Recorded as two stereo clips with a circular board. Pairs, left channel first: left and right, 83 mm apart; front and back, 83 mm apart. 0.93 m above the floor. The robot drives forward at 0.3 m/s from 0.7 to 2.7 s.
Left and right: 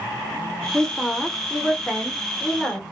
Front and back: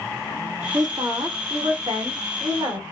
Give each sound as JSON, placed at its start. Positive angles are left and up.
{"t": 0.7, "sound": "a woman speaking", "azimuth_deg": 165, "distance_m": 0.5}